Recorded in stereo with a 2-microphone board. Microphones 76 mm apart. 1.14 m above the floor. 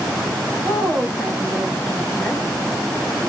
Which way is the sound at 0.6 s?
10° left (ahead or behind).